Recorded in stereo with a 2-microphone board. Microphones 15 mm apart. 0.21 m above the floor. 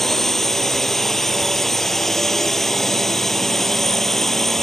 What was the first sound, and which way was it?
A drone, 20° left (ahead or behind).